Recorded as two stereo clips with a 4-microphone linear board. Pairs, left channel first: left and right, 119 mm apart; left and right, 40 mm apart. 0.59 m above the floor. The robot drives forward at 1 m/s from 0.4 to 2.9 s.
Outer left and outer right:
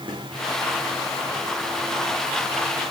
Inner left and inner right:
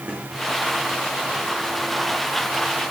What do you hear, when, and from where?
0.1 s a snare drum: 40° right (ahead or behind), 9.5 m